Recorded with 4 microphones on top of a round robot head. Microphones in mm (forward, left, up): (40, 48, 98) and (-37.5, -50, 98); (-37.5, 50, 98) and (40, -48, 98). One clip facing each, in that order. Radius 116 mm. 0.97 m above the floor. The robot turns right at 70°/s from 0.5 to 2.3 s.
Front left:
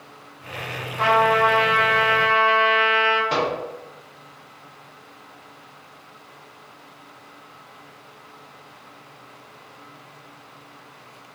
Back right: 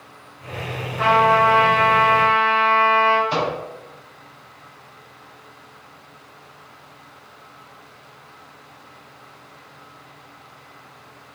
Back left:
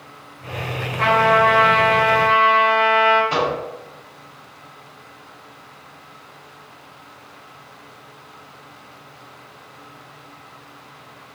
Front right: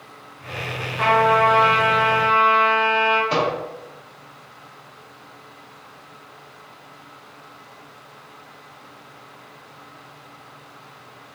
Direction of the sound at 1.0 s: 25° right.